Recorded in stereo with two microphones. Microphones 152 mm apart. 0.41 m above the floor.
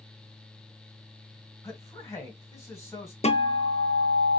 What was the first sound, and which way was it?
A man speaking, 20° left (ahead or behind).